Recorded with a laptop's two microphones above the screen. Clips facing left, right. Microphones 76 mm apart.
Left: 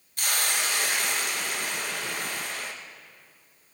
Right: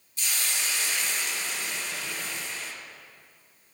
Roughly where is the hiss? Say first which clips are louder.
Left 5 dB; left.